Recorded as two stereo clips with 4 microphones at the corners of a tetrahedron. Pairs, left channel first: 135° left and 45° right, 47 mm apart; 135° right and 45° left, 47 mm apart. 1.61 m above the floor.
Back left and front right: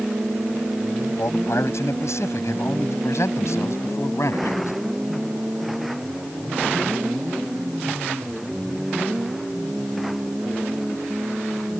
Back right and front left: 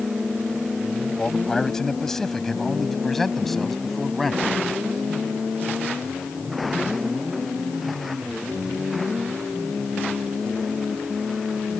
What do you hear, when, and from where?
1.2 s a man speaking: 150° left; by 4.7 s 135° left